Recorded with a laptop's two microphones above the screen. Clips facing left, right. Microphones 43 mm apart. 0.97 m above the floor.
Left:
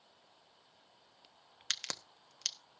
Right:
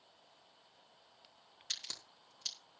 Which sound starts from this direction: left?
A crack, at 1.7 s.